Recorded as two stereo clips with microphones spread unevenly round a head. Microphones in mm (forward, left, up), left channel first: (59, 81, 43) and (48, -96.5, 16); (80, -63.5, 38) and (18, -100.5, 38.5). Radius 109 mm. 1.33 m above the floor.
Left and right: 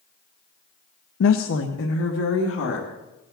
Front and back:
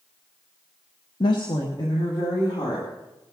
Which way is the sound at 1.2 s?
70° left.